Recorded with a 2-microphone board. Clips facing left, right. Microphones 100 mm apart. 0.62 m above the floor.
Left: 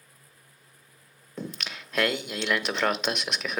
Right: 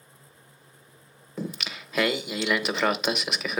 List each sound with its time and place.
1.4 s singing: centre (ahead or behind), 0.5 m